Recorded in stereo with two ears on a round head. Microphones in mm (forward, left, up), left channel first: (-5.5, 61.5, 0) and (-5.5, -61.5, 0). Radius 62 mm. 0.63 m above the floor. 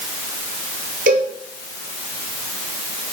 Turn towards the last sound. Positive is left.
turn(degrees=-65)  # may be behind; listen again after turning